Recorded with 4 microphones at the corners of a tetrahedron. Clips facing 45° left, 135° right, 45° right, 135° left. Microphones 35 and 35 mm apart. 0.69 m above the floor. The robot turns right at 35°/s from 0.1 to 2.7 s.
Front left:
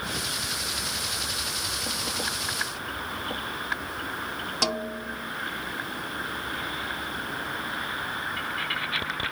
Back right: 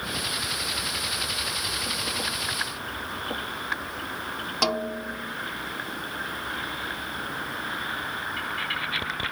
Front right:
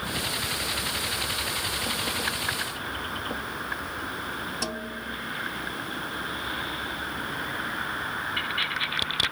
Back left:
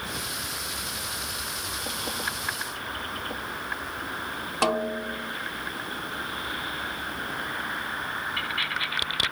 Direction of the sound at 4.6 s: 150° left.